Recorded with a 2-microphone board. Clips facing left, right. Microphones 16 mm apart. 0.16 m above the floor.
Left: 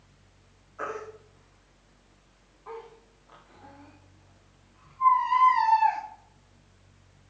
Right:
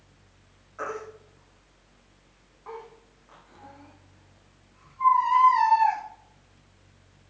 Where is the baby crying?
45° right (ahead or behind), 6.5 m.